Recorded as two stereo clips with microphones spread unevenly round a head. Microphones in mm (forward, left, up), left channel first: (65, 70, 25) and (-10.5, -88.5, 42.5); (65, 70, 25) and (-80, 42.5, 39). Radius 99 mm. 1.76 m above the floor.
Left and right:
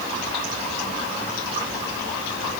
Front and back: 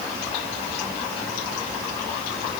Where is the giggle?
I don't hear a giggle.